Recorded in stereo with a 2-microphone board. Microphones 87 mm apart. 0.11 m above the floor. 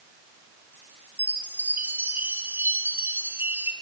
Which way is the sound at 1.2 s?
25° right (ahead or behind).